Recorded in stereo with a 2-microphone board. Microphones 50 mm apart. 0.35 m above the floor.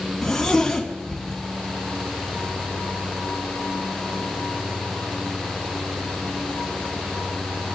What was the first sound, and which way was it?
A zipper, 5° left (ahead or behind).